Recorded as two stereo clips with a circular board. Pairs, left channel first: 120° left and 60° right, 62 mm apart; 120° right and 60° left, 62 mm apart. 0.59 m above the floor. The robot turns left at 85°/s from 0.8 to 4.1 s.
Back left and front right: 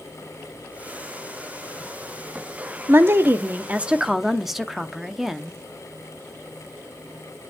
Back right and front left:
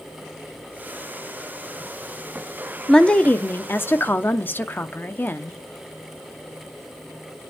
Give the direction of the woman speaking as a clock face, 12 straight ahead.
1 o'clock.